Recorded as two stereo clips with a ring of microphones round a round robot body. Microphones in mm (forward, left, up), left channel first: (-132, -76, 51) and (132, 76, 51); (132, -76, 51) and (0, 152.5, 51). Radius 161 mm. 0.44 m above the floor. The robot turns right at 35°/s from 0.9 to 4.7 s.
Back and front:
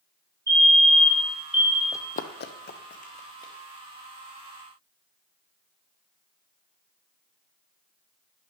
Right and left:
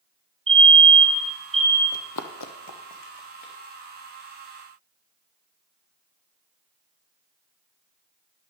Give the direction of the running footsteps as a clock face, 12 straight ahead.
2 o'clock.